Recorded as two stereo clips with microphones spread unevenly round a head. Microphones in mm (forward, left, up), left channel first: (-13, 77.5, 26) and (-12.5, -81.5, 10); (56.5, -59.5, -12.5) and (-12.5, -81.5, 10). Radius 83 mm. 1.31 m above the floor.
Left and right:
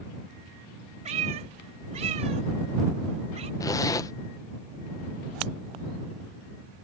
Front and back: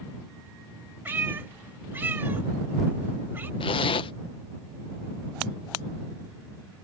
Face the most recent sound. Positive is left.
turn(degrees=20)